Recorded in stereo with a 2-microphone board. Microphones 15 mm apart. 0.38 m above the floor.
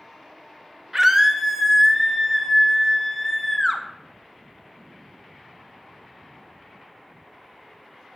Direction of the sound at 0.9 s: 25° right (ahead or behind).